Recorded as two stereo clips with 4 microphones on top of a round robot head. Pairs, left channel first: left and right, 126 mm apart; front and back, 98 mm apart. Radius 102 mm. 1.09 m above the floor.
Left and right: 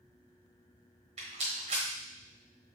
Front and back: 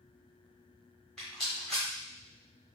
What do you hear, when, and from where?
1.2 s a rattle: 85° right, 1.0 m